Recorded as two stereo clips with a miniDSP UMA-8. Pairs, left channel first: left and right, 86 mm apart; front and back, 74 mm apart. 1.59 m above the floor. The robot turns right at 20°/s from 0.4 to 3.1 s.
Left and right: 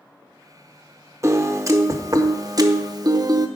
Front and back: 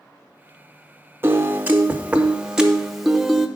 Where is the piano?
130° right, 0.7 m; by 3.5 s 95° right, 0.7 m.